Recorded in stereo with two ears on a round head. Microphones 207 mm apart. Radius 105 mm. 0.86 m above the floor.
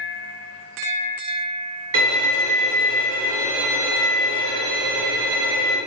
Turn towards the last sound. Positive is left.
turn(degrees=-60)  # may be behind; listen again after turning